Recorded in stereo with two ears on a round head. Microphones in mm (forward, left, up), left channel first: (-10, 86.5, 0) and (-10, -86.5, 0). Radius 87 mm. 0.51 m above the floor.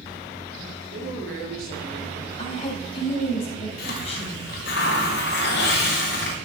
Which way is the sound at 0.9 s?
55° right (ahead or behind).